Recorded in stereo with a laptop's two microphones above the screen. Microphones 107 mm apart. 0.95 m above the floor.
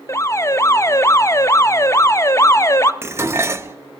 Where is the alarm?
30° left (ahead or behind), 0.5 m.